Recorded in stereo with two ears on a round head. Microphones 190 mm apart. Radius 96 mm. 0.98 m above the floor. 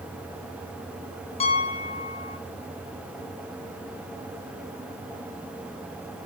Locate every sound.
1.4 s a piano: 30° left (ahead or behind), 2 m